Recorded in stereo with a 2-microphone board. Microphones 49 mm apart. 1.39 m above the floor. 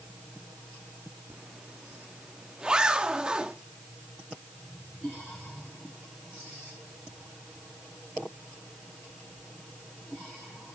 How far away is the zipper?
About 1.0 m.